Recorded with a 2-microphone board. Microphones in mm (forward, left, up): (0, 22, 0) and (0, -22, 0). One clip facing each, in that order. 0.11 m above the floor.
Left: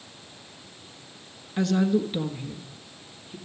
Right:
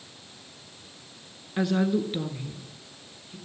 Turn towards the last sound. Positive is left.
turn(degrees=15)  # may be behind; listen again after turning